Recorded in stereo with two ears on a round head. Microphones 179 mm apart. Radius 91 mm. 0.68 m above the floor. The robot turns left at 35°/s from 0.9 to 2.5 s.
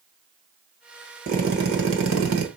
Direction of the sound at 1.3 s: 45° right.